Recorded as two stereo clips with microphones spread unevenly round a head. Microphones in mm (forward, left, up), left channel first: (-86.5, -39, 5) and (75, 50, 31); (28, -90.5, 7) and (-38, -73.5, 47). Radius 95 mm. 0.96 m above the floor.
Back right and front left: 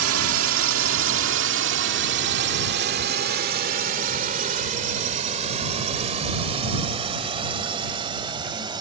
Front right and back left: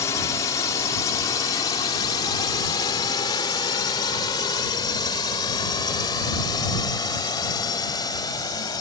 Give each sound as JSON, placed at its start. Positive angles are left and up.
{"t": 0.0, "sound": "a drone", "azimuth_deg": 25}